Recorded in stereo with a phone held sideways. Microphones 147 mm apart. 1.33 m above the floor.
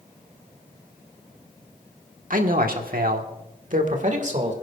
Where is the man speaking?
65° right (ahead or behind), 1.3 m; by 4.5 s 50° right (ahead or behind), 1.9 m.